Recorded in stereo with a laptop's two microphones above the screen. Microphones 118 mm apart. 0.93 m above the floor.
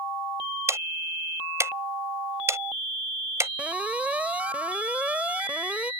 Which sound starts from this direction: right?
Ticking, at 0.7 s.